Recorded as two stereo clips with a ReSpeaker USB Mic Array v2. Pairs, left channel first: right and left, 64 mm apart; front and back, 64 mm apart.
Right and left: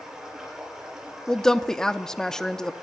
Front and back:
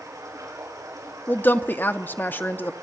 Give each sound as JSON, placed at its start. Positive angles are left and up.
{"t": 0.0, "sound": "running water", "azimuth_deg": 170, "distance_m": 6.0}
{"t": 1.3, "sound": "a woman speaking", "azimuth_deg": -15, "distance_m": 0.6}